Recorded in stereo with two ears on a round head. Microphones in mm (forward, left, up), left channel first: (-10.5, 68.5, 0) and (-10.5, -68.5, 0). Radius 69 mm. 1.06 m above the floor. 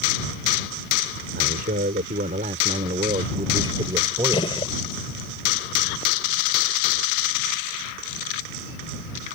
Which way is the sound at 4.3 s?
35° left (ahead or behind).